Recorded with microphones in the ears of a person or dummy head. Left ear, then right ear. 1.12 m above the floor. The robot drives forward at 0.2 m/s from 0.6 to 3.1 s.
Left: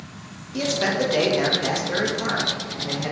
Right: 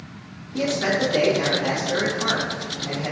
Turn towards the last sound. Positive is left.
turn(degrees=85)